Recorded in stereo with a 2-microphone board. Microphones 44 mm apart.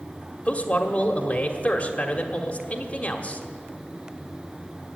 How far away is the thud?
I don't hear a thud.